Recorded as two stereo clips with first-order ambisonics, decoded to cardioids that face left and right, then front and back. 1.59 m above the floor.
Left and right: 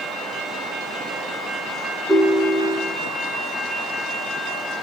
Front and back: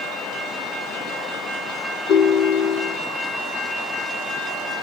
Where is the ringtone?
10° right, 1.5 m.